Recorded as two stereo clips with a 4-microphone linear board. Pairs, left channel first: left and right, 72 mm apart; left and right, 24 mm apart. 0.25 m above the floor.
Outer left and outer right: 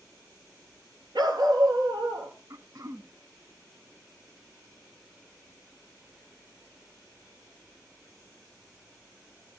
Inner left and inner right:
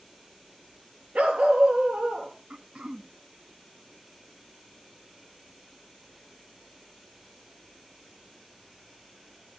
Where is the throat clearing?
50° right (ahead or behind), 0.9 m.